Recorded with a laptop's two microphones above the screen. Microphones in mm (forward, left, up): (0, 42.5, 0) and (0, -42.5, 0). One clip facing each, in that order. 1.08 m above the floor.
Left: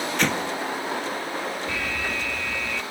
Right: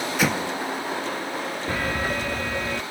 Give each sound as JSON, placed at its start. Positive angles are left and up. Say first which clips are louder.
{"t": 0.2, "sound": "an explosion", "louder": "right 1 dB", "side_deg": -5}
{"t": 1.7, "sound": "an alarm", "louder": "right 3 dB", "side_deg": -45}